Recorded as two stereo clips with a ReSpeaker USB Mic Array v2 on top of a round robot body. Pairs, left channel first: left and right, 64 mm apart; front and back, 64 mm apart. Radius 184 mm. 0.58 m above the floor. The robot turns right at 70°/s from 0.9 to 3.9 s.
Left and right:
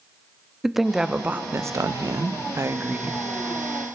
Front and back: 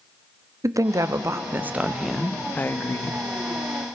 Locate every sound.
0.6 s a woman speaking: 175° right, 0.9 m; by 3.3 s 10° right, 0.9 m